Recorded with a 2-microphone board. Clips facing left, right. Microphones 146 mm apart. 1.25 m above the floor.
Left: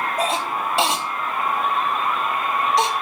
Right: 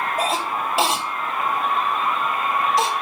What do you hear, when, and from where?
0.2 s a cough: 5° right (ahead or behind), 3 m